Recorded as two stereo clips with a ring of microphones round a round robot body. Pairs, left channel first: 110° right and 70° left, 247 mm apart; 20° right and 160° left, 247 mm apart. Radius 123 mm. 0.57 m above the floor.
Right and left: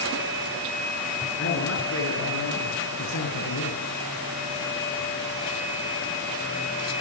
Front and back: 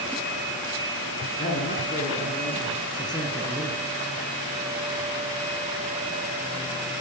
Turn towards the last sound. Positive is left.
turn(degrees=-105)